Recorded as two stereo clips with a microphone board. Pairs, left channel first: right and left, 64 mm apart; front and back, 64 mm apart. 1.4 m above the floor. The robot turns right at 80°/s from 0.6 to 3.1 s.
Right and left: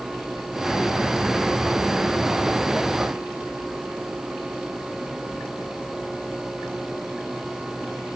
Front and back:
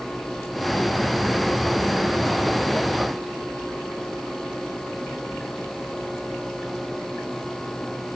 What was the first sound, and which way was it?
Only background noise.